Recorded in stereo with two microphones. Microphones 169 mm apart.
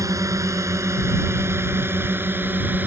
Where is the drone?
20° right (ahead or behind); by 2.9 s 10° right (ahead or behind).